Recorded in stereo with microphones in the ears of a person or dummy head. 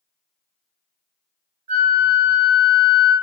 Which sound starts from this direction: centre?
A flute, at 1.7 s.